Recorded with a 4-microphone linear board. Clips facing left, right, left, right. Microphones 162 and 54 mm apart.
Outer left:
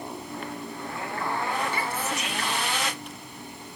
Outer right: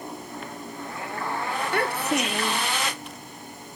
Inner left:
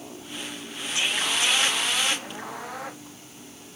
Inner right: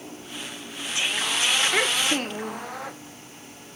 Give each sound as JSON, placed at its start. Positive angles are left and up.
{"t": 1.7, "sound": "a child speaking", "side_deg": -60}